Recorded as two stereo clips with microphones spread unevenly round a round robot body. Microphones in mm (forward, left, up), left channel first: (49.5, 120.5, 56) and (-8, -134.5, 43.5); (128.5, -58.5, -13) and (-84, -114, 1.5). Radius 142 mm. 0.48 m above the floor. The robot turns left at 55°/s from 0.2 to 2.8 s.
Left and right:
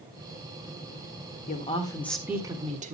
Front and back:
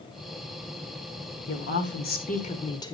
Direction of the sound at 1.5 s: 25° left.